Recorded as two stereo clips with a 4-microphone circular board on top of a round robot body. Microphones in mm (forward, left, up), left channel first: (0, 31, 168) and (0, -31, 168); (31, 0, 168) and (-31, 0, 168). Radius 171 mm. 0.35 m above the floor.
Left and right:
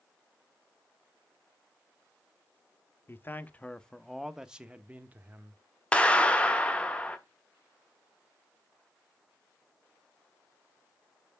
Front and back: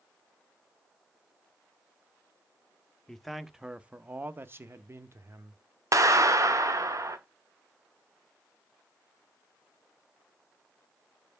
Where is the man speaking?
80° left, 0.9 m; by 5.6 s 145° right, 1.3 m.